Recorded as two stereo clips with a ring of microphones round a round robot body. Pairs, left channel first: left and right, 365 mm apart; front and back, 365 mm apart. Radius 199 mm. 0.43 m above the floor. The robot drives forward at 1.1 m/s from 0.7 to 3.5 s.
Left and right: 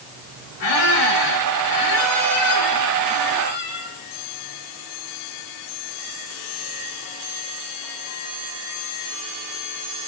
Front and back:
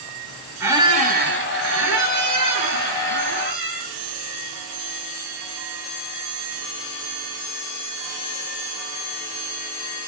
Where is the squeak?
100° left, 1.6 m; by 4.0 s 155° left, 3.5 m.